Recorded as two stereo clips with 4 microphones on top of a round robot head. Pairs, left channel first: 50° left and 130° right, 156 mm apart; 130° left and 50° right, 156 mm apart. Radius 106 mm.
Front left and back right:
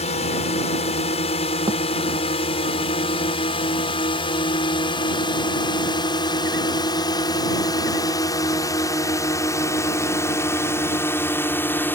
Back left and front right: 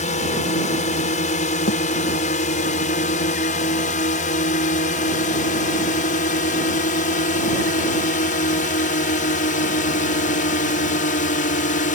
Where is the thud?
165° left.